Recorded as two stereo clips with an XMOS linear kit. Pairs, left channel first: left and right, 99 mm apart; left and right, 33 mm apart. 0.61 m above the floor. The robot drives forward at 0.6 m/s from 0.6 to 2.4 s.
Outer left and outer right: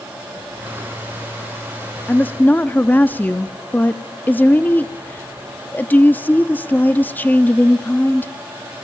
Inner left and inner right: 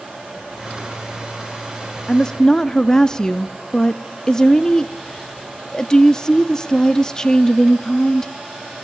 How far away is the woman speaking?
About 0.5 m.